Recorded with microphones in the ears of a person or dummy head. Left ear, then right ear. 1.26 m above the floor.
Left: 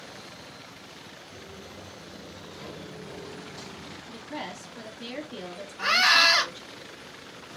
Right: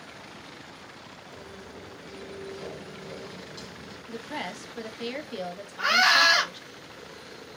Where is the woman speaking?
50° right (ahead or behind), 1.0 m.